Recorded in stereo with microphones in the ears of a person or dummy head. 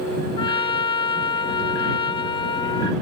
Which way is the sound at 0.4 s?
20° left (ahead or behind).